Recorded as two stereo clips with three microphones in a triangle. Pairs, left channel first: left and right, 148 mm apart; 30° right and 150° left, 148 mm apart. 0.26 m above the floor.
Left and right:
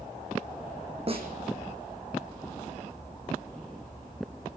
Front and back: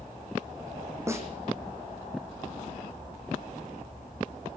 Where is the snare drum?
140° right, 2.5 m.